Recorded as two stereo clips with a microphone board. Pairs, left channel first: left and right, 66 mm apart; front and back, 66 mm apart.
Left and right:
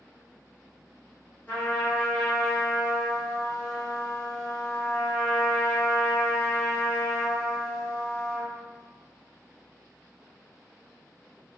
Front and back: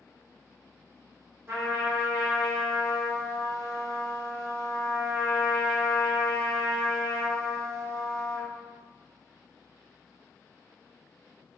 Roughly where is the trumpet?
Behind left.